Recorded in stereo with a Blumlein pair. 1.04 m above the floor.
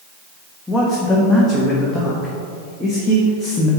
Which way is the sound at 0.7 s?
5° left.